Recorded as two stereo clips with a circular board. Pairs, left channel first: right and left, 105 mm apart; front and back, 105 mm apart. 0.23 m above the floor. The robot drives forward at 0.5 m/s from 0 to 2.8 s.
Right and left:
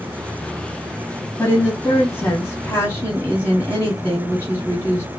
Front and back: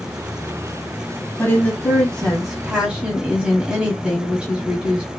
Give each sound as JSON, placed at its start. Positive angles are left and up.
{"t": 1.4, "sound": "a woman speaking", "azimuth_deg": -45, "distance_m": 1.2}